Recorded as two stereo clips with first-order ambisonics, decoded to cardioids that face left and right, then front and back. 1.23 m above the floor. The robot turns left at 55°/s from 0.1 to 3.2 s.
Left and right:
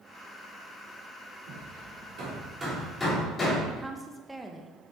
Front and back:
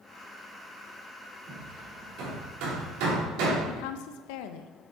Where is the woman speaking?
5° right, 0.8 m.